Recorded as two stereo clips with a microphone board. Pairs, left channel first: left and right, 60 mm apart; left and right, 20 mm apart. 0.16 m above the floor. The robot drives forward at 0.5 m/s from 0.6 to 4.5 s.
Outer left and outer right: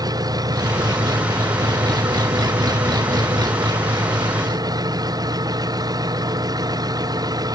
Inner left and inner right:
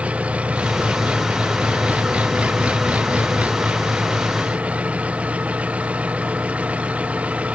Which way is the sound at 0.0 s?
80° right.